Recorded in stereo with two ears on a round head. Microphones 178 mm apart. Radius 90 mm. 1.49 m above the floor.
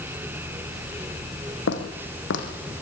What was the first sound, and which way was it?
Footsteps, 65° left (ahead or behind).